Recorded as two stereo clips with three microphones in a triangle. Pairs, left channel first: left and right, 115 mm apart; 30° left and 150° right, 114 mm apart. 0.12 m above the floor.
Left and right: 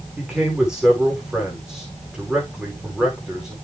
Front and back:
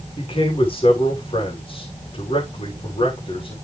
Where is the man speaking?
5° right, 7.5 m.